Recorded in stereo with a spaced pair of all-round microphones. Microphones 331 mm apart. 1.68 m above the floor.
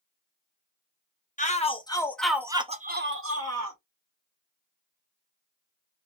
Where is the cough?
No cough in this recording.